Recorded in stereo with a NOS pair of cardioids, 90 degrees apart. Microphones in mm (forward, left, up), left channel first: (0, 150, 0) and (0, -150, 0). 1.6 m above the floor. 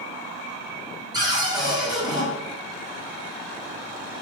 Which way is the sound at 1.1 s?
15° right.